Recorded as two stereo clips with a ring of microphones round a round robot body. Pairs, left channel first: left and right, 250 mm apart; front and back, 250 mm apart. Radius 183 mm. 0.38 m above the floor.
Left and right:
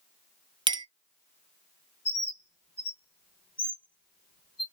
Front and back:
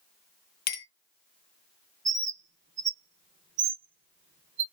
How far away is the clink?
About 0.5 m.